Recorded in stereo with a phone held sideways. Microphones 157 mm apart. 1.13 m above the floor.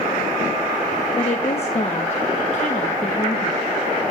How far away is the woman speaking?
About 1.2 m.